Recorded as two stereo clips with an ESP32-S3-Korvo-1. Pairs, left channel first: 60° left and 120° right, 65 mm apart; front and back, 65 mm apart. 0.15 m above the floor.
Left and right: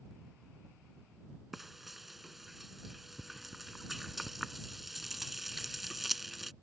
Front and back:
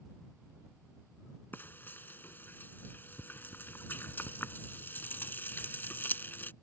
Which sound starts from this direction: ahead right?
Frying, at 1.5 s.